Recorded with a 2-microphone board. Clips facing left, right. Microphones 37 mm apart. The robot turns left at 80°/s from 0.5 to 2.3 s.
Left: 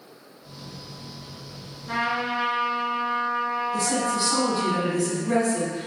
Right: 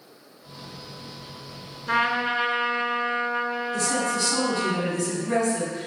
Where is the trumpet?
85° right, 0.6 m; by 4.7 s 120° right, 0.6 m.